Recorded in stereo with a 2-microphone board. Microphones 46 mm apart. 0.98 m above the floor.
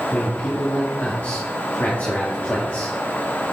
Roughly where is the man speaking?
Left.